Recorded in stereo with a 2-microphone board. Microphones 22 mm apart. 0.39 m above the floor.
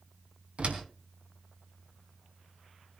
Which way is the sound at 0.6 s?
65° right (ahead or behind).